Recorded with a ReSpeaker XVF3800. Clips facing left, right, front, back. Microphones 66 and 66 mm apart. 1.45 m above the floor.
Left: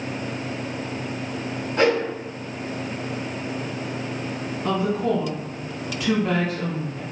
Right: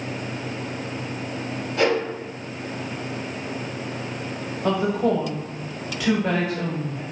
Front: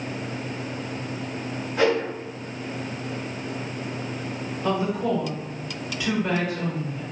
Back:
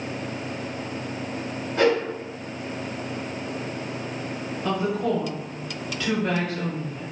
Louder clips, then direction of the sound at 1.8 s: Left 1 dB, back 1 dB; 80° left.